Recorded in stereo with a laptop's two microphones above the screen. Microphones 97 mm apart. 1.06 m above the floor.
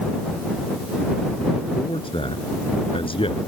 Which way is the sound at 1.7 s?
65° left (ahead or behind).